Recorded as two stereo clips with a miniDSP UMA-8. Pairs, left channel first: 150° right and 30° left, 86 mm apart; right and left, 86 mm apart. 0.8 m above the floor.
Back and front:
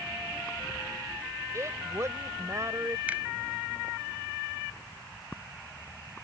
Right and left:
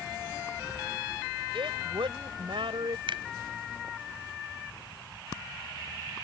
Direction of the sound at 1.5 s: 85° left.